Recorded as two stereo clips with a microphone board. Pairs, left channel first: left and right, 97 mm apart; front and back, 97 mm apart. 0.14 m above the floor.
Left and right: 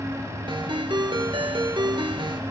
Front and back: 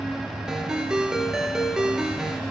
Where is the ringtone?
95° right, 1.2 m.